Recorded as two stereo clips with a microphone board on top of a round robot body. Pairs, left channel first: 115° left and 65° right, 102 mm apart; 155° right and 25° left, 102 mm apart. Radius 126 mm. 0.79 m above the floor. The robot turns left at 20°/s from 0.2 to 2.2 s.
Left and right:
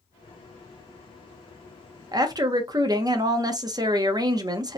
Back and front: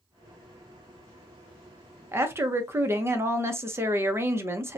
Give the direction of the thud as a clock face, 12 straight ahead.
I don't hear a thud.